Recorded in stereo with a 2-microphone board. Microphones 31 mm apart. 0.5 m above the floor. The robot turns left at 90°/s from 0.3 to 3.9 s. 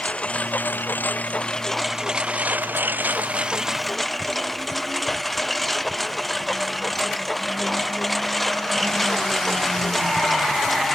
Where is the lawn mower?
135° left; by 11.0 s 175° left.